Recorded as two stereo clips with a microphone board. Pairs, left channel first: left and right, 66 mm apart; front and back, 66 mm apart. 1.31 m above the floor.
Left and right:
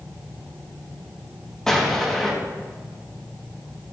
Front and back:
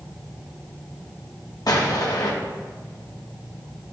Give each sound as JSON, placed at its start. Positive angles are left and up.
{"t": 1.7, "sound": "an explosion", "azimuth_deg": 5, "distance_m": 1.0}